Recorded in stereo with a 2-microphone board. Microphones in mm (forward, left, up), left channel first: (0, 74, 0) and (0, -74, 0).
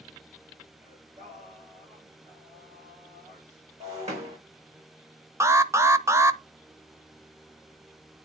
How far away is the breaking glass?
About 5.5 m.